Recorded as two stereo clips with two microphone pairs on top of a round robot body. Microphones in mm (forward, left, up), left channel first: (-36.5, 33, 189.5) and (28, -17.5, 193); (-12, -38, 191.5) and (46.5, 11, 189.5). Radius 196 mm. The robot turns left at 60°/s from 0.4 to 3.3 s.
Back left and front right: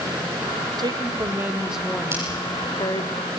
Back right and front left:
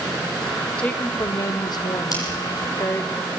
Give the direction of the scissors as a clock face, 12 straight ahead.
3 o'clock.